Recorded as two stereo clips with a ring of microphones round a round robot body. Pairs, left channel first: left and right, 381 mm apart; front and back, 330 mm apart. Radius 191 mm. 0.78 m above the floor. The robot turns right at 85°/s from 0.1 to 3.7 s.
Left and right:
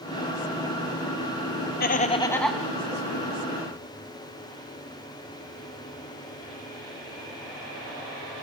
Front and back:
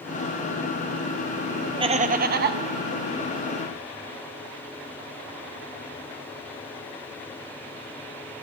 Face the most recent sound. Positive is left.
turn(degrees=-75)